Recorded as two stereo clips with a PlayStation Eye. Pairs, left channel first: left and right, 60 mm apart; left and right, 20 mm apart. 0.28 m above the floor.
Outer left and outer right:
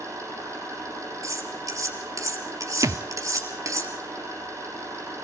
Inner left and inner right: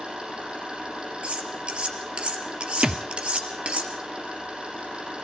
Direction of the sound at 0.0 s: 55° right (ahead or behind).